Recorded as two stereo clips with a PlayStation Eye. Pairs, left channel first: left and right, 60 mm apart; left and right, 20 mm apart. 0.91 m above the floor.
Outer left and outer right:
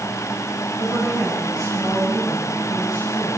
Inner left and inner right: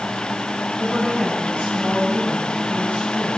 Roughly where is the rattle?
No rattle in this recording.